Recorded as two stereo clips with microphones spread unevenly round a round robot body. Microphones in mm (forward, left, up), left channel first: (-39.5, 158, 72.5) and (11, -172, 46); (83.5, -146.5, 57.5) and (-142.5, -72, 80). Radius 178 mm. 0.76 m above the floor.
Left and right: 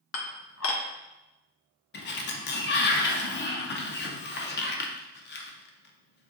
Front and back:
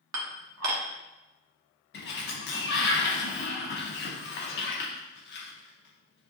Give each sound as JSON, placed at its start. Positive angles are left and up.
{"t": 0.1, "sound": "dishes clattering", "azimuth_deg": 150, "distance_m": 1.1}
{"t": 1.9, "sound": "a sliding door", "azimuth_deg": 35, "distance_m": 0.6}